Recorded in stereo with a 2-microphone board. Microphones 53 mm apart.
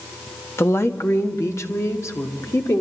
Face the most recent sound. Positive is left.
turn(degrees=75)  # may be behind; listen again after turning